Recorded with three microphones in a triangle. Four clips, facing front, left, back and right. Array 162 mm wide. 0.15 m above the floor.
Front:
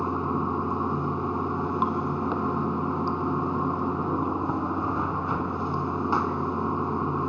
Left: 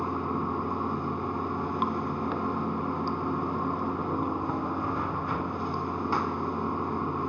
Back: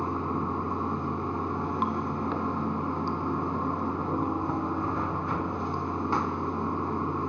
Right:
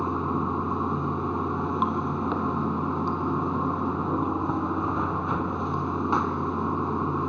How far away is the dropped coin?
No dropped coin in this recording.